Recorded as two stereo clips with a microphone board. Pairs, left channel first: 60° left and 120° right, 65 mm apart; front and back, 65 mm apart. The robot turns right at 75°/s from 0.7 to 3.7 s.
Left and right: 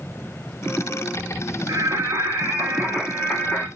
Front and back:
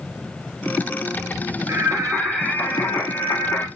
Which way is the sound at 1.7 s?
140° right.